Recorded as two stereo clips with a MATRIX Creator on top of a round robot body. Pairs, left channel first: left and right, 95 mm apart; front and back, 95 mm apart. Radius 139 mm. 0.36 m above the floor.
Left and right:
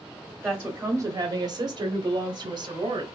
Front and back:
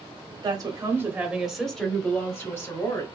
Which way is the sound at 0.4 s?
160° right.